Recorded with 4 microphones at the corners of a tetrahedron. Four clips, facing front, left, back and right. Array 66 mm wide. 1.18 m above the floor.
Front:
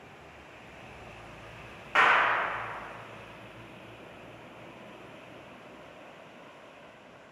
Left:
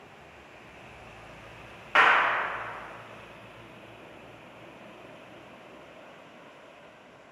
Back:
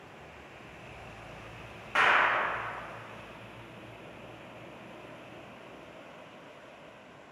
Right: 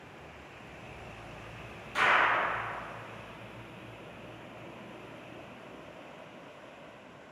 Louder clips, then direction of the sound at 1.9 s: Left 4 dB, front 2 dB; 80° left.